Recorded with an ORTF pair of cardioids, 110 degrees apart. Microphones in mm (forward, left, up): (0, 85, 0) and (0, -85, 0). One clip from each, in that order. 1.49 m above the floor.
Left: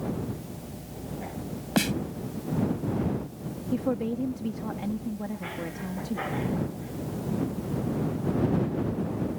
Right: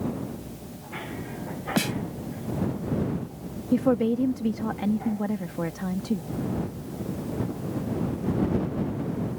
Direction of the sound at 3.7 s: 35° right.